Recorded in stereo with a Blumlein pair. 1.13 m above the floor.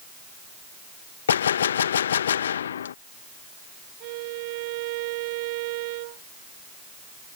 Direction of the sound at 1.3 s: 65° left.